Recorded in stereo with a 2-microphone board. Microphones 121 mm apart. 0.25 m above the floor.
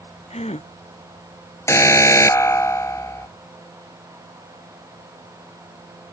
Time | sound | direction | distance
0.3 | a gasp | 60° left (ahead or behind) | ?
1.7 | an alarm | 20° left (ahead or behind) | ?